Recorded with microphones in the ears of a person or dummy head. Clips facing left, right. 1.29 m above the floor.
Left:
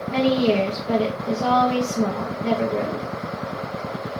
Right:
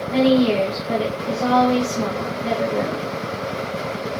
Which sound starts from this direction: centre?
A woman speaking, at 0.1 s.